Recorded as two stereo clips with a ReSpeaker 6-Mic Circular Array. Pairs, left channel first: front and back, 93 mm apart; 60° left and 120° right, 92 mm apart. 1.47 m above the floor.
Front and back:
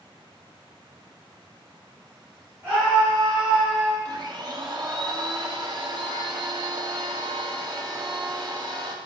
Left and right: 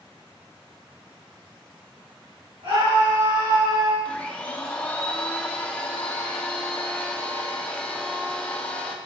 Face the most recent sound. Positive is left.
turn(degrees=135)